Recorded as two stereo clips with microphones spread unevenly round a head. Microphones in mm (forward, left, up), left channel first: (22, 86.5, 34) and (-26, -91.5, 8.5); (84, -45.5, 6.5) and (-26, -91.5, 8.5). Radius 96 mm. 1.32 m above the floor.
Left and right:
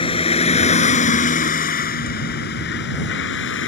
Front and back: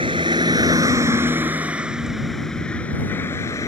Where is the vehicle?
135° left; by 3.7 s 100° left.